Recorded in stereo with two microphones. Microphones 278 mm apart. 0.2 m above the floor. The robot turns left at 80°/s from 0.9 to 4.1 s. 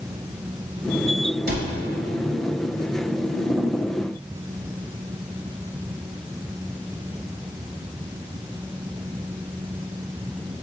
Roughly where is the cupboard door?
Right.